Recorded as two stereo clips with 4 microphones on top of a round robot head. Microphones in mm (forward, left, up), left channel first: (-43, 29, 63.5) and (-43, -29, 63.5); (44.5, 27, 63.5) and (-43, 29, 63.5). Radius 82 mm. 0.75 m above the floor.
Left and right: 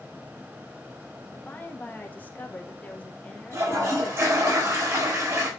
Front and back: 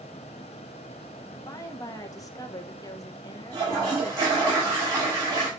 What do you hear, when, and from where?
1.3 s a woman speaking: 35° left, 1.3 m
3.5 s a toilet flushing: 130° right, 4.5 m